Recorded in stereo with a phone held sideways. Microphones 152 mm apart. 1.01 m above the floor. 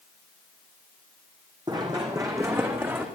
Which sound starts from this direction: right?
Running footsteps, at 1.7 s.